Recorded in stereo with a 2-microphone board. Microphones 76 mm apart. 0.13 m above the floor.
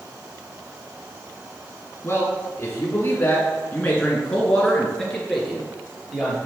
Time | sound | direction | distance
2.0 | a man speaking | 25° left (ahead or behind) | 2.0 m